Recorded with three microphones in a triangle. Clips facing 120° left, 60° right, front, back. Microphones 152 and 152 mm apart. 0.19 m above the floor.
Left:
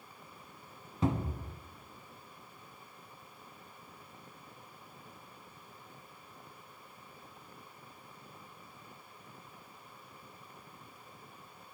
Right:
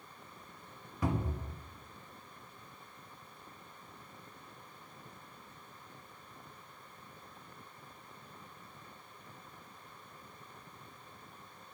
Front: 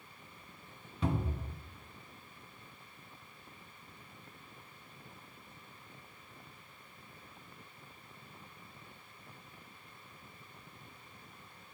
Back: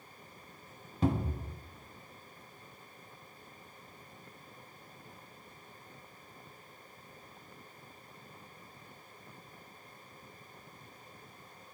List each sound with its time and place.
1.0 s a cupboard door: 170° left, 0.8 m